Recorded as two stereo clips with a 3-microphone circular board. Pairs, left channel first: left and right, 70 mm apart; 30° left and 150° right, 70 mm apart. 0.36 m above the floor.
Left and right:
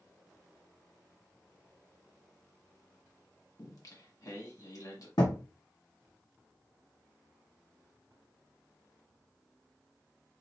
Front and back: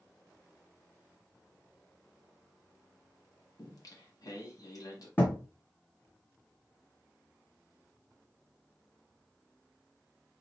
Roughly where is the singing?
Ahead left.